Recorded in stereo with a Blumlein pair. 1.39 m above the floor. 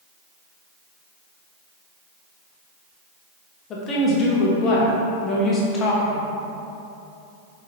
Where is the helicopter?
No helicopter in this recording.